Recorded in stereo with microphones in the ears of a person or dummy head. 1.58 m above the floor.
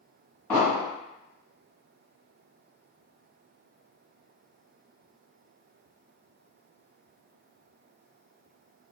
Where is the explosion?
5° left (ahead or behind), 1.4 m.